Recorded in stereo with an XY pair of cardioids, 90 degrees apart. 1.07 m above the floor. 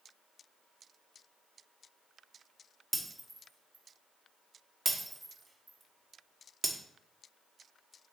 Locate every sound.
2.9 s breaking glass: 25° right, 1.5 m